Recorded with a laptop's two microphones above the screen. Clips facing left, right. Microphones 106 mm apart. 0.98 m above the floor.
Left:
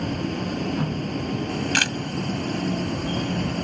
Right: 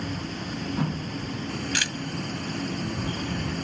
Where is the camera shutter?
70° left (ahead or behind).